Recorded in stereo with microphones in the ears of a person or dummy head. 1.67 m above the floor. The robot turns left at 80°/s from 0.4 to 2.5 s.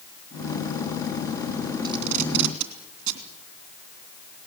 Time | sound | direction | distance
1.8 | tape being pulled | 20° right (ahead or behind) | 3 m